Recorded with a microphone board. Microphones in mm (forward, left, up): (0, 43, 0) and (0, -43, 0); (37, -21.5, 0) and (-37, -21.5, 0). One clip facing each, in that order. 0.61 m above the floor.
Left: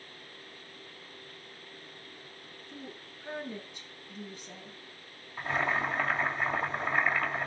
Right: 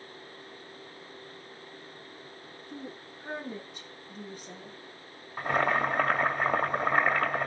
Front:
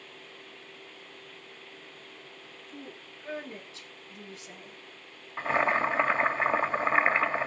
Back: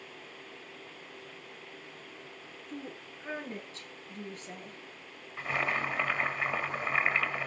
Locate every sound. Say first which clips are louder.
2.7 s a woman speaking: right 4 dB, back 3 dB; 125° right, 9 m
5.4 s boiling: right 4 dB, front 6 dB; 55° right, 2.5 m